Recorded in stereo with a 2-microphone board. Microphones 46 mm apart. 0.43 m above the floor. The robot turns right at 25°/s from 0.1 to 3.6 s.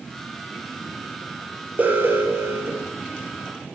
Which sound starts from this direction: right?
An alarm, at 1.8 s.